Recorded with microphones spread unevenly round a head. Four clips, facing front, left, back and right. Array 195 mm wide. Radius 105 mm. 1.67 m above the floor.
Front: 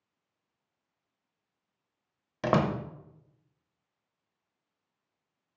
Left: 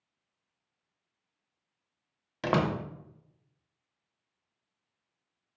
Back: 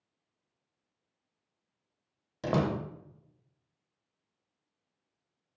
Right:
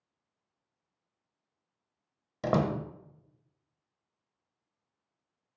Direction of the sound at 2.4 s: 90° right.